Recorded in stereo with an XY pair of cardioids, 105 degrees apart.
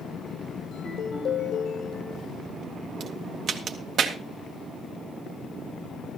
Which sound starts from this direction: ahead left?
A ringtone, at 0.7 s.